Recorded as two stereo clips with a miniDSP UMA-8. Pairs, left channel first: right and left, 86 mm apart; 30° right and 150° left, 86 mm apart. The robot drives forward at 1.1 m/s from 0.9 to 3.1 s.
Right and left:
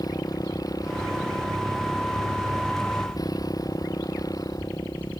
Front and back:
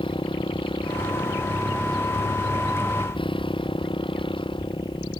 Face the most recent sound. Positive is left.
turn(degrees=-45)